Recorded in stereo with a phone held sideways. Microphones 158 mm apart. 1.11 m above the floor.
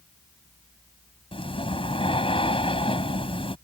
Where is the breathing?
35° left (ahead or behind).